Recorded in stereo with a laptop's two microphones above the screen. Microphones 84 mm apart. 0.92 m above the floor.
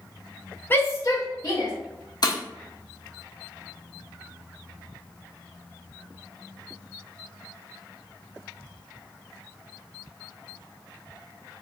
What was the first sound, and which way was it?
A shout, 25° left (ahead or behind).